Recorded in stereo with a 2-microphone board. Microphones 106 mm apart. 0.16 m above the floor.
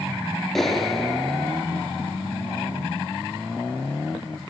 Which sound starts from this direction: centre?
A clap, at 0.6 s.